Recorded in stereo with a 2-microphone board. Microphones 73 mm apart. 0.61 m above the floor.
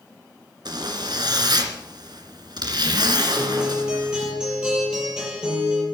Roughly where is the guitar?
Centre.